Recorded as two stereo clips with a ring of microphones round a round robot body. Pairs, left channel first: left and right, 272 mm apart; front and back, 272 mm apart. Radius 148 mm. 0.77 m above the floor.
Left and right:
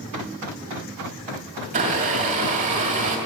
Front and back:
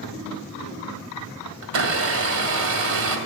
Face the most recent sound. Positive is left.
turn(degrees=-160)